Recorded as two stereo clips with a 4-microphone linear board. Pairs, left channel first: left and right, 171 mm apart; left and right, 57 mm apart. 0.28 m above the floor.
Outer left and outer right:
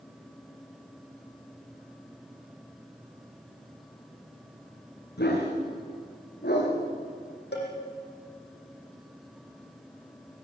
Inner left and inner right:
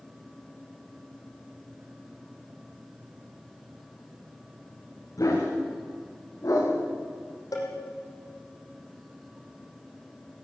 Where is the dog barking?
70° left (ahead or behind), 7.5 m; by 6.7 s 65° left (ahead or behind), 7.5 m.